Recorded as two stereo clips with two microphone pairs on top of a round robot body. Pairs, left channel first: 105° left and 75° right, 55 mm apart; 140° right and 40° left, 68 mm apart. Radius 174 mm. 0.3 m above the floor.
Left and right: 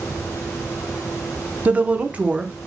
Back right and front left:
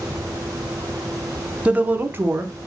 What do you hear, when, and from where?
1.6 s a woman speaking: 15° right, 0.9 m; by 2.7 s straight ahead, 1.3 m